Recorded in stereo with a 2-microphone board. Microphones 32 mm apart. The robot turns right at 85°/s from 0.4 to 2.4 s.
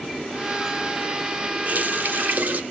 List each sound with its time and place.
1.6 s a running tap: 130° right, 1.6 m; by 2.6 s 65° right, 1.6 m